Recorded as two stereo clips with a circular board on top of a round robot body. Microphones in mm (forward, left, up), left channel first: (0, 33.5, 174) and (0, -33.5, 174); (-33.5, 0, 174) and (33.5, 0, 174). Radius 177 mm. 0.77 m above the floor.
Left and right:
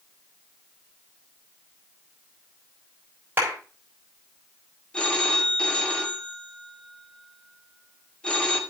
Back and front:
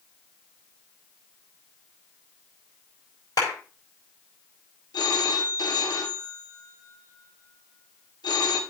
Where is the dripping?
No dripping in this recording.